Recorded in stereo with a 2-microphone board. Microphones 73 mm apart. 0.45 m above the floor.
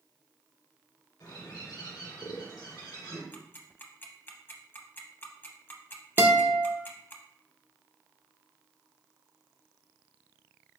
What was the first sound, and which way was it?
A bird, 80° left.